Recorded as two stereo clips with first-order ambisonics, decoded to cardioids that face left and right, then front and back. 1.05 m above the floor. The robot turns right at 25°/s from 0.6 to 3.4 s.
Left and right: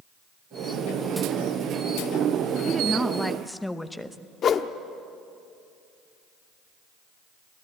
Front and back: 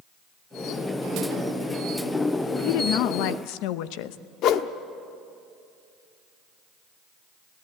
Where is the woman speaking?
15° right, 0.9 m; by 4.2 s 5° left, 0.9 m.